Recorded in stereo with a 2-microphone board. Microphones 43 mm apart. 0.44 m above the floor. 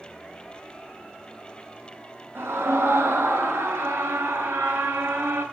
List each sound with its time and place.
2.4 s a scream: 80° right, 6.5 m; by 5.4 s 75° right (ahead or behind), 7.5 m